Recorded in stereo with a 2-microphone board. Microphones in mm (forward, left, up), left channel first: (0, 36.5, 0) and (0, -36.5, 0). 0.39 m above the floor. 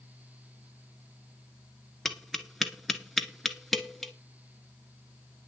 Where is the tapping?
Centre (ahead or behind), 1.2 m.